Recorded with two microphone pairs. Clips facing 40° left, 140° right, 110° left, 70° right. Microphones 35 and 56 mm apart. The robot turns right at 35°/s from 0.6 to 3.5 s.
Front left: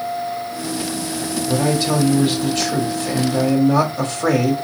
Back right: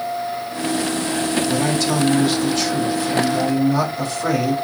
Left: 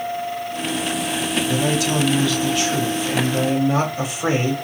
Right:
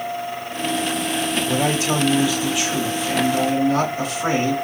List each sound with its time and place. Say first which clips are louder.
1.5 s a man speaking: front left 1 dB, even; 30° right, 1.3 m; by 4.5 s 40° left, 1.3 m